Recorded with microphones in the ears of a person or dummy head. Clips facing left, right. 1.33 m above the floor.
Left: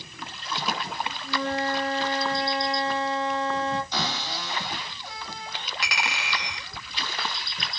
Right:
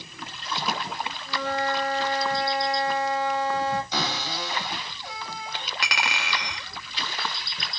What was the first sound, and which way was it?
A flute, 30° left (ahead or behind).